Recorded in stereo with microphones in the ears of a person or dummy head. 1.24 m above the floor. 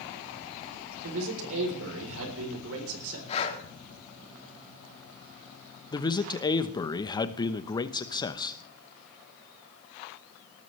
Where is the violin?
No violin in this recording.